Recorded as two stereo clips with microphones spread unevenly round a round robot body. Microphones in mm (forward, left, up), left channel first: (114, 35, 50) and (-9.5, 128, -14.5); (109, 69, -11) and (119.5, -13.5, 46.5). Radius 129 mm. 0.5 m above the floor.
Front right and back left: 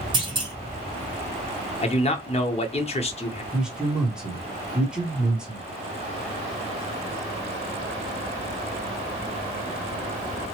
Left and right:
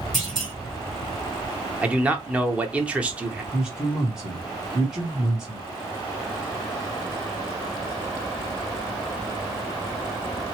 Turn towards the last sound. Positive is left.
turn(degrees=115)